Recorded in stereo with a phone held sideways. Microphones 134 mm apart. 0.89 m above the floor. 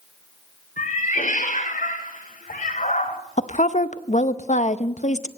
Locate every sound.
0.8 s a cat meowing: 80° left, 1.6 m
3.4 s a woman speaking: 60° left (ahead or behind), 0.7 m